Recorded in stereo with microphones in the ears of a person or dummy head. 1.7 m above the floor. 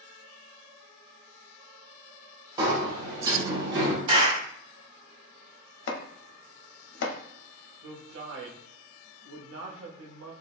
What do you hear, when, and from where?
2.6 s a sliding door: 20° right (ahead or behind), 0.6 m
4.1 s a clap: 25° right (ahead or behind), 0.9 m
5.9 s chopping: 70° left (ahead or behind), 0.5 m
7.8 s a man speaking: 75° right (ahead or behind), 0.7 m